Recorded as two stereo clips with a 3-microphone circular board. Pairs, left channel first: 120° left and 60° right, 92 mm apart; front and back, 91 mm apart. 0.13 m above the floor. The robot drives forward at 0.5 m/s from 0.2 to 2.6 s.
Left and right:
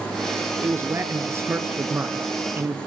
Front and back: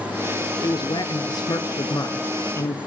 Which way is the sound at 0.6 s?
5° right.